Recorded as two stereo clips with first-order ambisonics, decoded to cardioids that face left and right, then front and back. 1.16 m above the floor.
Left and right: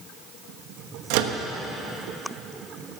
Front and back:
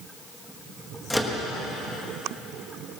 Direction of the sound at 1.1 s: 85° right.